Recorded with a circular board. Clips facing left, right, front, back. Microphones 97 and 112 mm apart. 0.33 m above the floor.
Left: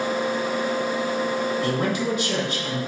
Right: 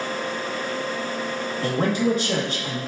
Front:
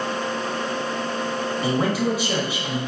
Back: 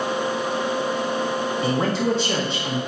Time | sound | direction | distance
1.6 | a man speaking | 75° right | 1.2 m